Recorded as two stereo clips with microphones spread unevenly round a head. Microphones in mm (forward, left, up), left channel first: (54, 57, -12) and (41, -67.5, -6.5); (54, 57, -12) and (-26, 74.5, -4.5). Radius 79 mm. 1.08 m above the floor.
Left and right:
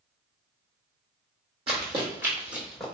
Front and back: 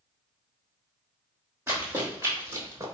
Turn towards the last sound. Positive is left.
turn(degrees=170)